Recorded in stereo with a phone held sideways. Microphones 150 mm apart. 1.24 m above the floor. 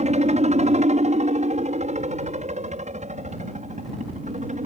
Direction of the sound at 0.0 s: 50° right (ahead or behind).